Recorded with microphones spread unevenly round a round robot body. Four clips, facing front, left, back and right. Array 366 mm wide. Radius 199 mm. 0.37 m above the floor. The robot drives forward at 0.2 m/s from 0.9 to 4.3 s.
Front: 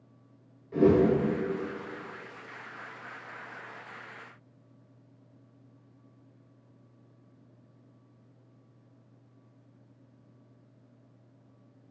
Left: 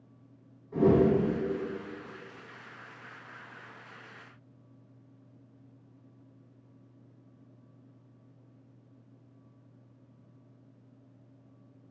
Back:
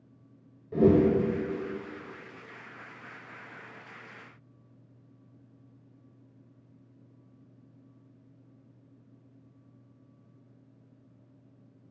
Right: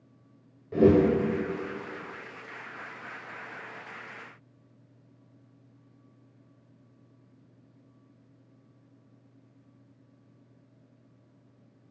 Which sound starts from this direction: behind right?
A whoosh, at 0.7 s.